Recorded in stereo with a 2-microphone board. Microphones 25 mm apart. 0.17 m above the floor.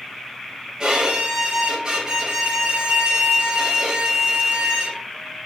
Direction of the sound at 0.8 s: 35° right (ahead or behind).